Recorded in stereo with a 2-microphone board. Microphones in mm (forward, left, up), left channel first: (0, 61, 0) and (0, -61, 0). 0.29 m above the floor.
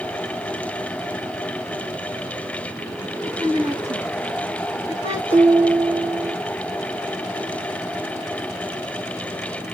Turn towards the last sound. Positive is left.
turn(degrees=-60)  # may be behind; listen again after turning